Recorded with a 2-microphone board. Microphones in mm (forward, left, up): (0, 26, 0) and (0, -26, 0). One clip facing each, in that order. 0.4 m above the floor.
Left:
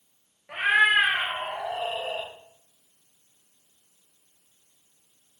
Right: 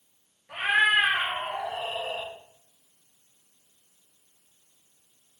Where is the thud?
No thud in this recording.